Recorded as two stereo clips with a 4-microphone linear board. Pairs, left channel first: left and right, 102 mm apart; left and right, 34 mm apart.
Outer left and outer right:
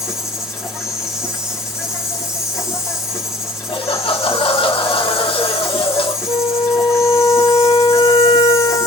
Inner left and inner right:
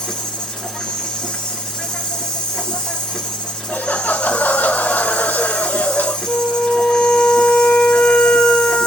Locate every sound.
0.0 s an insect: 30° left (ahead or behind), 3 m
3.7 s laughter: 60° left (ahead or behind), 1.5 m
6.3 s a flute: 85° left, 4 m